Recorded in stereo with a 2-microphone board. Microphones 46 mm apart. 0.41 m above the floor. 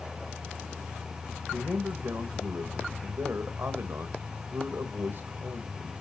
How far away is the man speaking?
About 1.9 m.